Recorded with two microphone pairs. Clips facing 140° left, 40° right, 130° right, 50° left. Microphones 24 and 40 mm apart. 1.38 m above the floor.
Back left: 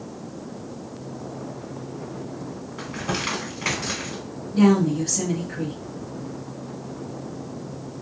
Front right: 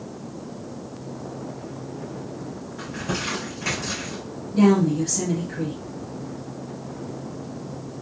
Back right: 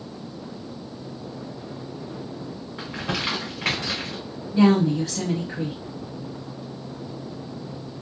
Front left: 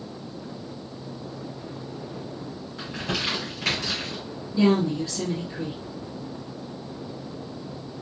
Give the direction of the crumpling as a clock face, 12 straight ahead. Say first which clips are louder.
Back left 1 dB, back right 1 dB; 6 o'clock.